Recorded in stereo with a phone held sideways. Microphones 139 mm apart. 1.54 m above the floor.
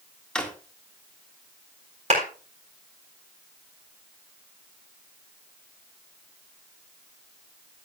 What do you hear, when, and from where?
0.3 s a drawer: 5° left (ahead or behind), 1.6 m
2.1 s a clap: 55° right (ahead or behind), 4 m